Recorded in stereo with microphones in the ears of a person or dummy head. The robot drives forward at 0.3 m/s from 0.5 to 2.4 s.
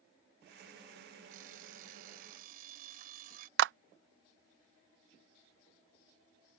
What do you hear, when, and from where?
1.3 s an alarm clock: 50° right (ahead or behind); by 3.5 s 55° right (ahead or behind)
3.6 s a clap: 75° right (ahead or behind)